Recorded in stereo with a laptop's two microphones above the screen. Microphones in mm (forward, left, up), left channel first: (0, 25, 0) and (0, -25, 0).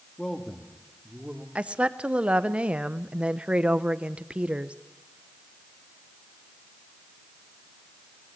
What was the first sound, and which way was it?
A man speaking, 20° left (ahead or behind).